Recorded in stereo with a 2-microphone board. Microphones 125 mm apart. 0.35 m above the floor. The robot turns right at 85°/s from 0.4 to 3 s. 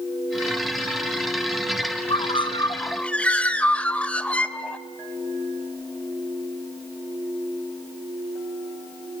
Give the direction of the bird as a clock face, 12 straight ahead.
9 o'clock.